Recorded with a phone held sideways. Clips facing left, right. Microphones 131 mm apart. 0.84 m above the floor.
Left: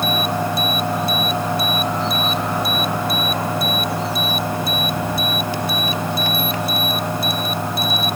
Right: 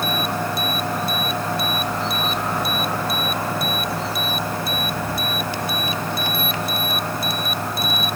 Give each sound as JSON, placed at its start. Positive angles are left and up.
{"t": 0.0, "sound": "a fan", "side_deg": 20}